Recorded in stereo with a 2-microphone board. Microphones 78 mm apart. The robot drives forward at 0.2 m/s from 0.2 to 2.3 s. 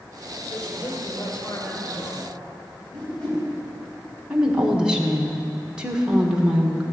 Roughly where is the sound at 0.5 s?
Left.